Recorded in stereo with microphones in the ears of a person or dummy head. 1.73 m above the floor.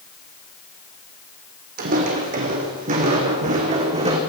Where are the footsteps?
50° right (ahead or behind), 4 m; by 4.2 s 35° right (ahead or behind), 4.5 m.